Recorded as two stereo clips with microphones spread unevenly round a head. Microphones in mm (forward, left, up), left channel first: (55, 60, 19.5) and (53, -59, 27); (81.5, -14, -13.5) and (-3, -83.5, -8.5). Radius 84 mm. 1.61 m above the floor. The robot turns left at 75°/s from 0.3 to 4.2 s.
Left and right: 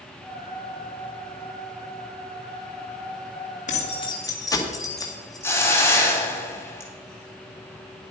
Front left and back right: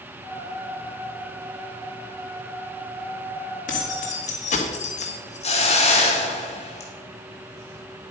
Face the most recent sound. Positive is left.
turn(degrees=20)